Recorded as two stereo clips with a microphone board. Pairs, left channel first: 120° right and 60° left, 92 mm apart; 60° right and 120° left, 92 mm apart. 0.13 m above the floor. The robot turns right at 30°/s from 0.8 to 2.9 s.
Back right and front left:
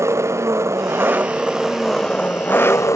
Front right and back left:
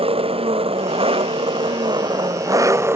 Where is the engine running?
120° left; by 3.0 s 175° right.